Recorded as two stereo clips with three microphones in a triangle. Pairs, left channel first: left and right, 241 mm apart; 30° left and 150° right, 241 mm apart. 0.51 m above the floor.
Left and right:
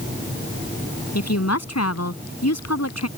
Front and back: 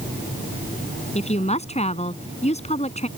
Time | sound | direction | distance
1.1 | a woman speaking | 95° left | ?